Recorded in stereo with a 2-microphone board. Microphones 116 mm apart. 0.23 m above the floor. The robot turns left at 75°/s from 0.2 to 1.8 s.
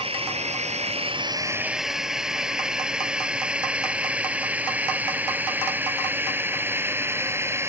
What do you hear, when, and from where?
0.0 s a drone: 55° right (ahead or behind); by 7.7 s 20° right (ahead or behind)